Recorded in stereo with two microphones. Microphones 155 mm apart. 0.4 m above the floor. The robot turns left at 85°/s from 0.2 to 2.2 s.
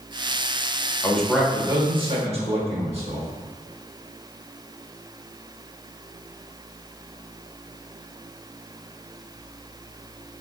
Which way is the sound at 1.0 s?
20° left.